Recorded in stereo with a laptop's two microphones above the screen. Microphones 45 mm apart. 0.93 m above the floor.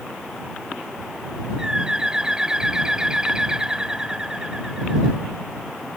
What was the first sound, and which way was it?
A bird, 15° right (ahead or behind).